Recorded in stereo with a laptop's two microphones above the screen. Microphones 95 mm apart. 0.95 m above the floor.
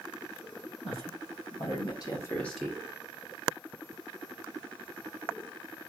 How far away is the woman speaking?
About 2.5 m.